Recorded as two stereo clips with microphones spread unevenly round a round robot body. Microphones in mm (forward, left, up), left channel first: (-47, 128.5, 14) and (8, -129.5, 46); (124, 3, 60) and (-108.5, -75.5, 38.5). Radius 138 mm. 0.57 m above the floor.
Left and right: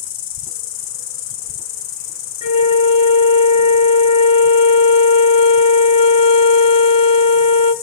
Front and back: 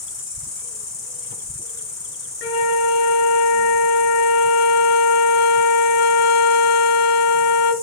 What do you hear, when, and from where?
0.0 s an insect: 110° left, 0.8 m
2.4 s a flute: 40° left, 0.8 m